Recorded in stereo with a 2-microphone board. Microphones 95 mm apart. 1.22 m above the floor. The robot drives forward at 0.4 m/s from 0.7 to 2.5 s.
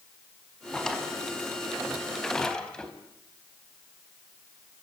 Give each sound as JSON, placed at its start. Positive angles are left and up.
{"t": 0.7, "sound": "a drawer", "side_deg": 5, "distance_m": 5.0}